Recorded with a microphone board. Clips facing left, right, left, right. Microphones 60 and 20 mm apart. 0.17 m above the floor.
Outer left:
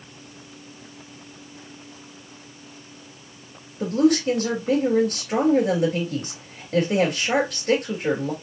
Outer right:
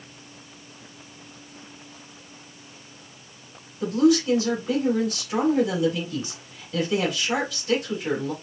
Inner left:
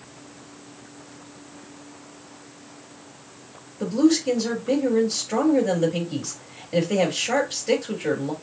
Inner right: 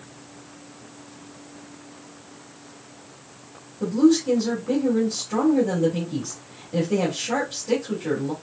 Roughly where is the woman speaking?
Left.